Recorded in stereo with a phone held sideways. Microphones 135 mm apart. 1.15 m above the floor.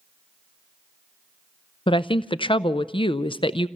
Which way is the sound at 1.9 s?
40° left (ahead or behind).